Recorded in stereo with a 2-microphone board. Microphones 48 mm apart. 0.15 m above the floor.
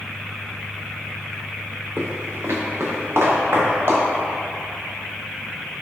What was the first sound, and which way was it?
Footsteps, 50° right (ahead or behind).